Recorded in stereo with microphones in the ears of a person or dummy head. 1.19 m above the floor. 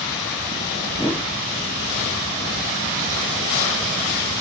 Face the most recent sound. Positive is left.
turn(degrees=10)  # may be behind; listen again after turning